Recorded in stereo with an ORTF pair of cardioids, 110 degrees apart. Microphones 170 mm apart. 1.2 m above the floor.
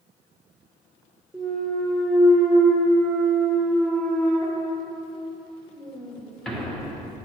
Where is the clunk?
5° left, 0.9 m.